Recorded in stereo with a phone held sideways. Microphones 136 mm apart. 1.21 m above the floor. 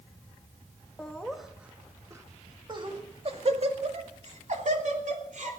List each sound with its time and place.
1.0 s laughter: 10° left (ahead or behind), 1.8 m; by 5.5 s 70° right (ahead or behind), 3.5 m